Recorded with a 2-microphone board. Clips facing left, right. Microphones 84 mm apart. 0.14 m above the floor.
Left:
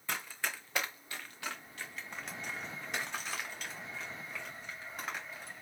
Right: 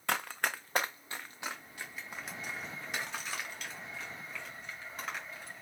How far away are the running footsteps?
About 0.7 m.